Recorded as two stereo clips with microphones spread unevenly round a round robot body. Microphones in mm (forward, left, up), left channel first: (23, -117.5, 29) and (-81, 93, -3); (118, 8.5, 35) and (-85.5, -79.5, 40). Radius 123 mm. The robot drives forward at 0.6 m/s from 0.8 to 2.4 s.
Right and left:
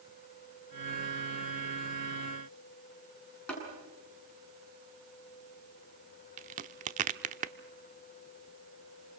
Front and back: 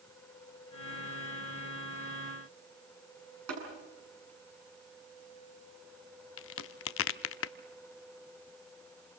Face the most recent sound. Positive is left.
turn(degrees=55)